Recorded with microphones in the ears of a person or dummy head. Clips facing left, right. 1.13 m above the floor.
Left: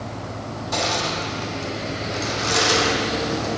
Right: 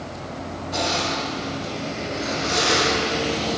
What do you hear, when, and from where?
0.7 s crushing: 70° left (ahead or behind), 1.5 m